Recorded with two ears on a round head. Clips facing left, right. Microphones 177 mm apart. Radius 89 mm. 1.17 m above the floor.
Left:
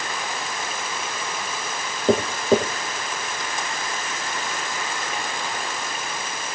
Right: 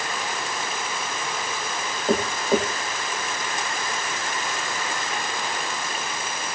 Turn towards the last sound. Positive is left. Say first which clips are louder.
# left 3 dB
turn(degrees=80)